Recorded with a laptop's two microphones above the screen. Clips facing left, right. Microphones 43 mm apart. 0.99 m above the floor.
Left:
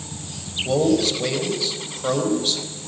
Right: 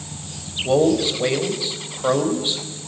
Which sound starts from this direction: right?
A man speaking, at 0.7 s.